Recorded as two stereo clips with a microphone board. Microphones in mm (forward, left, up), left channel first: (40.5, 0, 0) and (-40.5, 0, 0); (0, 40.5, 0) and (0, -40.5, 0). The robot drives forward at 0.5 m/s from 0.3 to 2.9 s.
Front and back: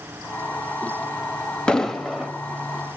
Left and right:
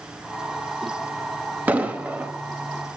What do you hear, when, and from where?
1.7 s an explosion: 60° right, 0.9 m; by 2.3 s 110° right, 0.9 m